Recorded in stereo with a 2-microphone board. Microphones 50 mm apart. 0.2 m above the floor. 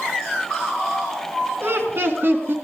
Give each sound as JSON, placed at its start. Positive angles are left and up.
{"t": 1.6, "sound": "laughter", "side_deg": -50, "distance_m": 2.5}